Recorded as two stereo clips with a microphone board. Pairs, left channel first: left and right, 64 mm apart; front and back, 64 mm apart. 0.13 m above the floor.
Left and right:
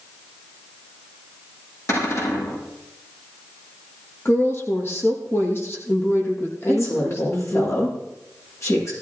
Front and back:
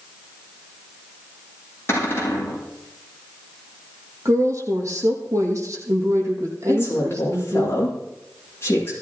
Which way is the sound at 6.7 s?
50° left.